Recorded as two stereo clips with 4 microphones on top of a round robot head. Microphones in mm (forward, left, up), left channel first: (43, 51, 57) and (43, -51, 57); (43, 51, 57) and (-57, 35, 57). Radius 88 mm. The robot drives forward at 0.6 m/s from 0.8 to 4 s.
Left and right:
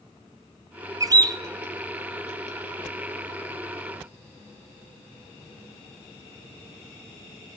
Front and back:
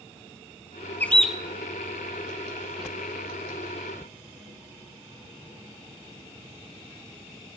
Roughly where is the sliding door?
I don't hear a sliding door.